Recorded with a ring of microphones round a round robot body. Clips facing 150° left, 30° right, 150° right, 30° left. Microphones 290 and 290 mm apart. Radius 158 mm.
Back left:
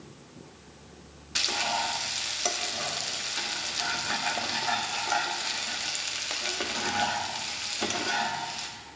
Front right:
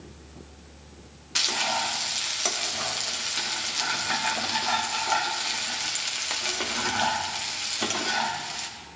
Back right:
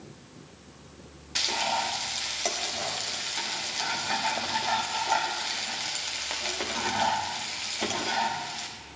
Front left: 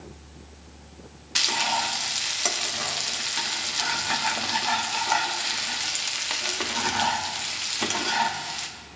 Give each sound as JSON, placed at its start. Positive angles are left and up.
{"t": 1.4, "sound": "frying", "azimuth_deg": 50, "distance_m": 1.2}